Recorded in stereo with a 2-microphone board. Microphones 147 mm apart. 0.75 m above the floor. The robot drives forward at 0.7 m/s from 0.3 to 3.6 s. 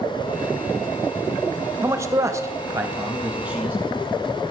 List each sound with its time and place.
1.8 s a man speaking: 20° right (ahead or behind), 0.7 m; by 3.8 s 10° right (ahead or behind), 1.1 m